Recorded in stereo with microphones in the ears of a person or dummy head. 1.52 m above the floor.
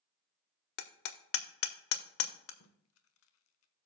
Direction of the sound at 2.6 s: 85° left.